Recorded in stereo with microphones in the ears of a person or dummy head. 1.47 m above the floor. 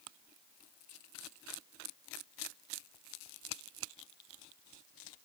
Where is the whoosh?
No whoosh in this recording.